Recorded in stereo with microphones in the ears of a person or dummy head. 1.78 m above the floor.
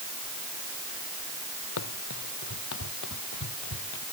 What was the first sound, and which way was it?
Running footsteps, 75° left (ahead or behind).